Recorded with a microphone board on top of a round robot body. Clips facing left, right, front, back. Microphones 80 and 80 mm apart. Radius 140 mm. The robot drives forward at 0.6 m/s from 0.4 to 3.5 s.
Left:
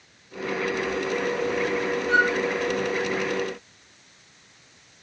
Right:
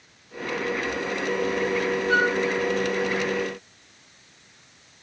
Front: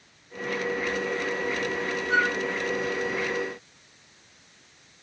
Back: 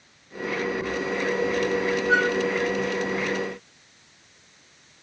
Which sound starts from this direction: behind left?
A flute, at 2.1 s.